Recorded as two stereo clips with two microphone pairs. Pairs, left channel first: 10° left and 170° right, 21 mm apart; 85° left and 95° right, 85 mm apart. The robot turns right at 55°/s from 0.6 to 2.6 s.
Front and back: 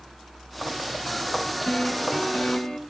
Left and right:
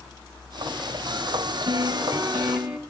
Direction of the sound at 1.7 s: 65° right.